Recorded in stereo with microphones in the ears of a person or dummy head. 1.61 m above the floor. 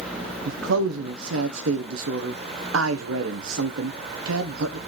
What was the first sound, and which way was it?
A man speaking, 70° right (ahead or behind).